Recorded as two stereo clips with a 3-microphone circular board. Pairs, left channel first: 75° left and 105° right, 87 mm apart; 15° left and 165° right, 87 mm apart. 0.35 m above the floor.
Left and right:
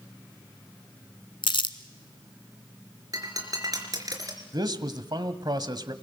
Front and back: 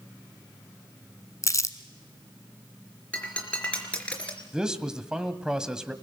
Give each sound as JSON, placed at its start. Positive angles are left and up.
{"t": 1.4, "sound": "crumpling", "azimuth_deg": 65, "distance_m": 1.2}
{"t": 3.1, "sound": "breaking glass", "azimuth_deg": -60, "distance_m": 4.0}
{"t": 4.5, "sound": "a man speaking", "azimuth_deg": -85, "distance_m": 1.7}